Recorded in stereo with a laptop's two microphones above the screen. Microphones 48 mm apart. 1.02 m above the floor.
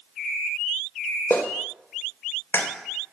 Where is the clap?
60° left (ahead or behind), 2.5 m.